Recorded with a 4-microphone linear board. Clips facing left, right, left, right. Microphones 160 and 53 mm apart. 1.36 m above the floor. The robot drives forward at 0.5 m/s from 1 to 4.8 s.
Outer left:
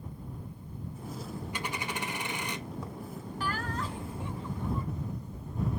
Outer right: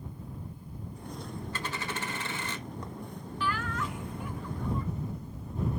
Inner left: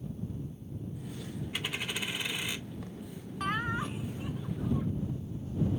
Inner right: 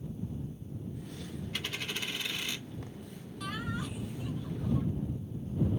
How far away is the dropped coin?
About 1.1 m.